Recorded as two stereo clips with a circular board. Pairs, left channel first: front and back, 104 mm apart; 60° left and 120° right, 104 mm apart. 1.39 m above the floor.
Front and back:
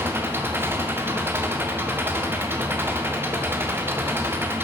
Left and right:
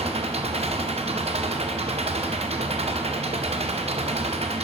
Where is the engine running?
110° right, 0.8 m.